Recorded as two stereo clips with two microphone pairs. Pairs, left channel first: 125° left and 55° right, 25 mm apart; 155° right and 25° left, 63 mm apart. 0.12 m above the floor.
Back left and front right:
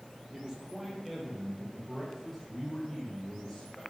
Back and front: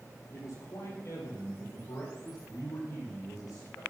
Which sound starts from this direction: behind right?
A man speaking, at 0.3 s.